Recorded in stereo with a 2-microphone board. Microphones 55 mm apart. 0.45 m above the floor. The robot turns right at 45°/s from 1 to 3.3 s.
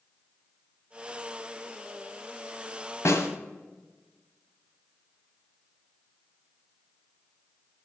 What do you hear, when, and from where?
3.0 s a snare drum: 60° left (ahead or behind), 1.5 m; by 3.3 s 70° left (ahead or behind), 1.5 m